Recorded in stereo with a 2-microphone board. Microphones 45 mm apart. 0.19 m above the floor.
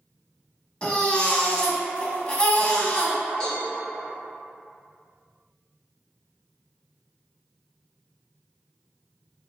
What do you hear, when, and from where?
0.8 s a baby crying: 25° left (ahead or behind), 0.5 m
3.4 s a cowbell: 10° left (ahead or behind), 1.7 m